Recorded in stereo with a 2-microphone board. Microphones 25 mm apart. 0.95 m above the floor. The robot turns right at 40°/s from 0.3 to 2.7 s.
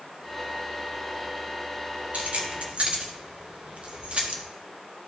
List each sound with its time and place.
2.1 s keys jangling: 75° right (ahead or behind), 1.1 m; by 4.4 s 55° right (ahead or behind), 1.1 m